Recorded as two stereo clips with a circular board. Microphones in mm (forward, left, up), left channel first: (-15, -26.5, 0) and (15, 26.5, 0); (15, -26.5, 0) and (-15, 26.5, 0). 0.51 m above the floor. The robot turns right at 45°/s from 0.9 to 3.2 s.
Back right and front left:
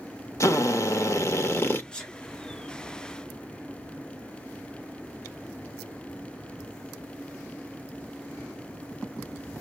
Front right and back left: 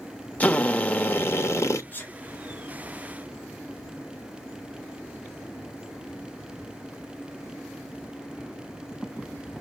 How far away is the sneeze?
About 1.1 m.